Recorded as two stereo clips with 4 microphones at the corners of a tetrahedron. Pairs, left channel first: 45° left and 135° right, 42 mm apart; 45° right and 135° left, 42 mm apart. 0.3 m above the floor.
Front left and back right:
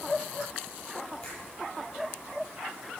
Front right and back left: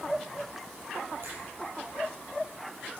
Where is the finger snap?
100° left, 8 m.